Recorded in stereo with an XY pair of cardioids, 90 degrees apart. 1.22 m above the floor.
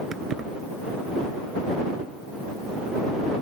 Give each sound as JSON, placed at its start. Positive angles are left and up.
{"t": 0.1, "sound": "keys jangling", "azimuth_deg": -60}